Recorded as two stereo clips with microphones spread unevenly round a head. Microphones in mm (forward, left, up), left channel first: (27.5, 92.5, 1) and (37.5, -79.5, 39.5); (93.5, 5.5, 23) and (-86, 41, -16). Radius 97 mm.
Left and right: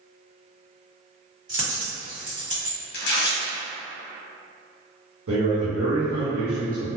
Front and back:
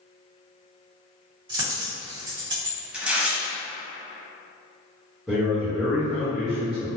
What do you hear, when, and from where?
1.5 s a dropped coin: 125° right, 1.5 m
2.9 s tearing paper: 75° left, 0.8 m
5.3 s a man speaking: 105° right, 1.0 m